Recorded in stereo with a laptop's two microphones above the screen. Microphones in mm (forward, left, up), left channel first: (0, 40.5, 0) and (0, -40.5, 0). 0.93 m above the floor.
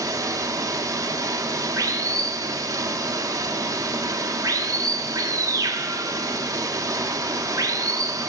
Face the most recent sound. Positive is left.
turn(degrees=-45)  # may be behind; listen again after turning